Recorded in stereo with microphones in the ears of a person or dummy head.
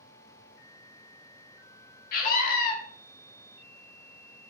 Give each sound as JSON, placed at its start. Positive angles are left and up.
{"t": 2.1, "sound": "a scream", "side_deg": 45, "distance_m": 0.6}